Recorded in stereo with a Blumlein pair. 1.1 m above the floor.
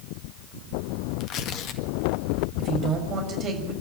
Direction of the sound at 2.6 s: 30° right.